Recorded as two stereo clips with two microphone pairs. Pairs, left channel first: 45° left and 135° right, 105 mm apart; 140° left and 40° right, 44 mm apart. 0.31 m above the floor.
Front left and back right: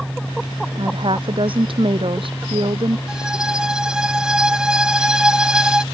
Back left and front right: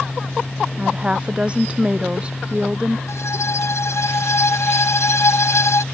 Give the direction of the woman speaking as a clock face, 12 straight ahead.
3 o'clock.